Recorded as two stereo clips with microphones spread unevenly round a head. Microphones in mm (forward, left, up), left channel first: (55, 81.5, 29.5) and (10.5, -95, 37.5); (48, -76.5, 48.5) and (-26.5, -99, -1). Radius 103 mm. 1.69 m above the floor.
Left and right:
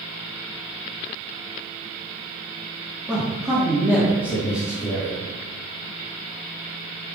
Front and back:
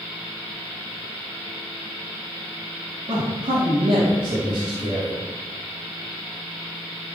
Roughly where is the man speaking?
Behind.